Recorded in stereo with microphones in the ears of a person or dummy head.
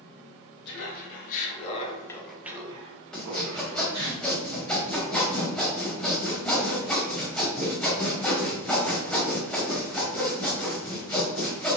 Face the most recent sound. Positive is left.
turn(degrees=10)  # may be behind; listen again after turning